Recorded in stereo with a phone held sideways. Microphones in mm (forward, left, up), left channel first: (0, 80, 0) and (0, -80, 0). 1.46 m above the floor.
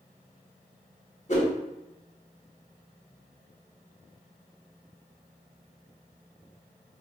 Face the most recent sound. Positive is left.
turn(degrees=50)  # may be behind; listen again after turning